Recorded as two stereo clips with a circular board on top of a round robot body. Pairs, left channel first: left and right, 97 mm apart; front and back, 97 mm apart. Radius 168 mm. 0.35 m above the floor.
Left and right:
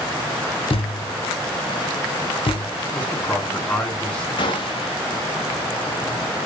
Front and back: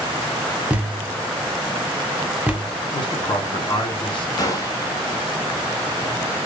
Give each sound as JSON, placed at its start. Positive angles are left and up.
{"t": 0.7, "sound": "a thud", "azimuth_deg": 100, "distance_m": 1.2}
{"t": 2.9, "sound": "a man speaking", "azimuth_deg": 15, "distance_m": 2.0}
{"t": 4.4, "sound": "a gunshot", "azimuth_deg": 55, "distance_m": 1.0}